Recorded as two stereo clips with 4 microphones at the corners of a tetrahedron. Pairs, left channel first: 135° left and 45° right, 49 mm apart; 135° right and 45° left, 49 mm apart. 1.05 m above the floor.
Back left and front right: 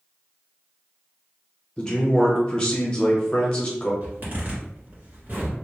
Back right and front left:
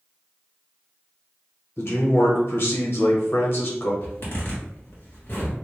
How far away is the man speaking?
About 0.9 m.